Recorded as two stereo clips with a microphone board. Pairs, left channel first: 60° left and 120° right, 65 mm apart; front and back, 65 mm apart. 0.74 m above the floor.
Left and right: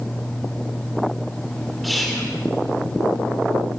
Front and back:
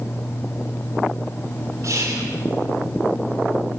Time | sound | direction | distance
1.8 | whispering | 150° left | 3 m